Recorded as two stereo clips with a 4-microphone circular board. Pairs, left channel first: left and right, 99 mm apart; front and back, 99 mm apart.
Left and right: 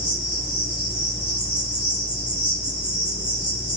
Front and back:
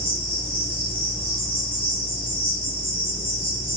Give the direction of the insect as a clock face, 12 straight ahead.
12 o'clock.